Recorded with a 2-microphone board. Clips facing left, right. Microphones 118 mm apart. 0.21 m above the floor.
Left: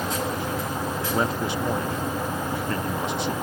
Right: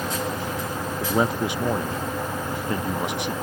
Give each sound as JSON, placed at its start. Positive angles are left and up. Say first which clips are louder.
{"t": 1.0, "sound": "a man speaking", "louder": "right 4 dB", "side_deg": -15}